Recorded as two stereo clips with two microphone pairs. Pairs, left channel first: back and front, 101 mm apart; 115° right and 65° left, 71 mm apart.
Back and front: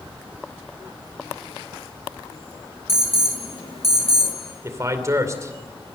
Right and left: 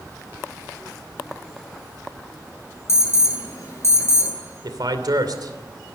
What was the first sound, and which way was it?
An alarm, 165° right.